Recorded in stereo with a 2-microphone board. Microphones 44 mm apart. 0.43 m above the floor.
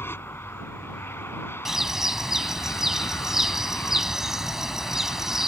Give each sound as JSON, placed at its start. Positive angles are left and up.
{"t": 0.0, "sound": "an aircraft", "side_deg": 60}
{"t": 1.6, "sound": "a bird", "side_deg": -10}